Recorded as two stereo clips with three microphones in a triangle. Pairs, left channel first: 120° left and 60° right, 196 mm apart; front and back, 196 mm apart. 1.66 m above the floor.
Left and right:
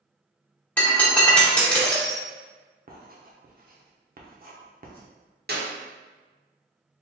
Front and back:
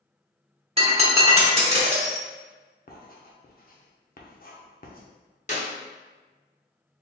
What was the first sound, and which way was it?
Breaking glass, 165° right.